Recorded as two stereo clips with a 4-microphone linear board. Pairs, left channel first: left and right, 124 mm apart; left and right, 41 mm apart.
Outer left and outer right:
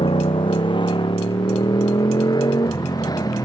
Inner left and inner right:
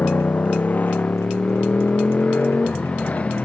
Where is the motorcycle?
45° left (ahead or behind); by 3.5 s 30° left (ahead or behind).